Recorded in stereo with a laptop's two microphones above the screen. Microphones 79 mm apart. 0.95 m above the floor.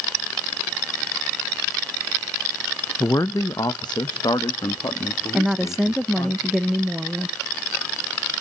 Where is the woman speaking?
5° right (ahead or behind), 0.7 m.